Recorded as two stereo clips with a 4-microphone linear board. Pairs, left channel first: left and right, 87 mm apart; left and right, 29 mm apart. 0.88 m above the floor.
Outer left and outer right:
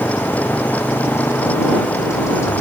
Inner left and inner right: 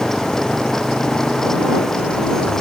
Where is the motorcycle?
30° left (ahead or behind); by 2.6 s 35° left (ahead or behind).